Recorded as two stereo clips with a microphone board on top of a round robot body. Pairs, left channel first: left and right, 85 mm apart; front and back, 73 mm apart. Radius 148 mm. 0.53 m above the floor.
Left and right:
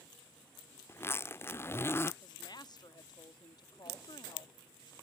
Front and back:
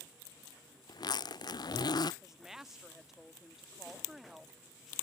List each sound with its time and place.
0.9 s a zipper: 25° left
2.2 s a woman speaking: 95° left